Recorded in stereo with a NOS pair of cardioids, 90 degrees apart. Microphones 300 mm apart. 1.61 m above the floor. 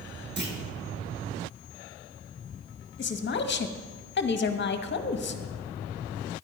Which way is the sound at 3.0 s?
35° left.